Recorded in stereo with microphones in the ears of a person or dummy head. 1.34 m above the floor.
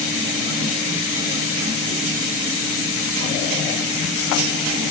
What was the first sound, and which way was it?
Only background noise.